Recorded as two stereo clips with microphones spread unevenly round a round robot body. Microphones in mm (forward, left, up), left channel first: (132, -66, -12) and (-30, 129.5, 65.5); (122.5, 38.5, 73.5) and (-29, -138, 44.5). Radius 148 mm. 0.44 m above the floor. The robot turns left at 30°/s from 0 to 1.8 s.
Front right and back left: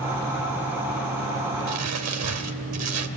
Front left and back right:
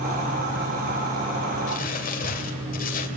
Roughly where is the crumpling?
Left.